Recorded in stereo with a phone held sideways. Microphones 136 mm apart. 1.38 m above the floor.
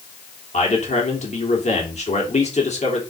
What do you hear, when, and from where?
0.5 s a man speaking: 55° left (ahead or behind), 3 m